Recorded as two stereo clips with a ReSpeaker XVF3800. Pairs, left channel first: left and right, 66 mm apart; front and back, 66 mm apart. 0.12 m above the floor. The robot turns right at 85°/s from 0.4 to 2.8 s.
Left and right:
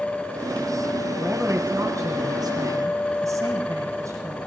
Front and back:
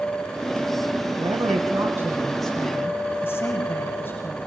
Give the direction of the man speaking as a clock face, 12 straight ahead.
6 o'clock.